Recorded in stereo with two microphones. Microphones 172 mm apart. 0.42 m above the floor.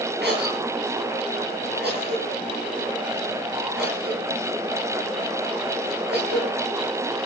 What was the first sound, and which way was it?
A cough, 75° right (ahead or behind).